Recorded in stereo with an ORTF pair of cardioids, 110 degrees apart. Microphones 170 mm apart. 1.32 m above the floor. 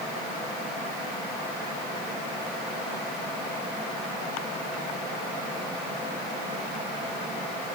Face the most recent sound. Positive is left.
No sound to turn to.